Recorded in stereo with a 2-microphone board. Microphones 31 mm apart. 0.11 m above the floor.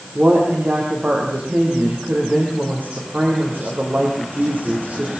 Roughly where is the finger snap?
No finger snap in this recording.